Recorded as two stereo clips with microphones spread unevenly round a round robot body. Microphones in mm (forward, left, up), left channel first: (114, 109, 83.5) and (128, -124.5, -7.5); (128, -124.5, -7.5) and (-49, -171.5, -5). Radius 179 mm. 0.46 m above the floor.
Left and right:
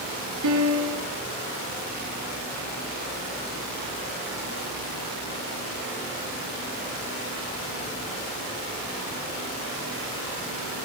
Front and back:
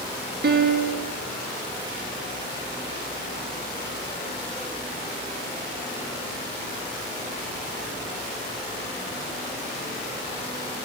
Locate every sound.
0.4 s a piano: 135° right, 1.3 m